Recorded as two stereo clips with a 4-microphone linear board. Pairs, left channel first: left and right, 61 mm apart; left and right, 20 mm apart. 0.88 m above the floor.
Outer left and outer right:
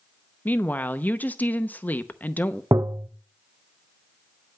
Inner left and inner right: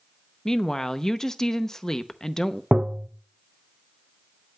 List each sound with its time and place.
0.5 s a woman speaking: 30° left (ahead or behind), 0.7 m
2.7 s tapping: 80° right, 0.5 m